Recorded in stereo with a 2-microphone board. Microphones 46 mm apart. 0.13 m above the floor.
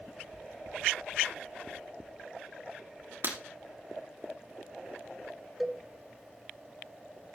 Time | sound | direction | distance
3.2 | breaking glass | 55° right (ahead or behind) | 3 m
5.6 | a cowbell | 5° right (ahead or behind) | 1.2 m